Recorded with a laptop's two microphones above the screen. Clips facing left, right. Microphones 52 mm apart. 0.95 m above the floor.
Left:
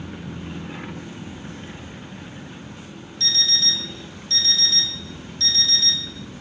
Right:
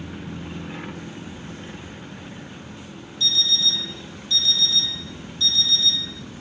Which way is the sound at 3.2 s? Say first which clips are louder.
Right 2 dB; 60° left (ahead or behind).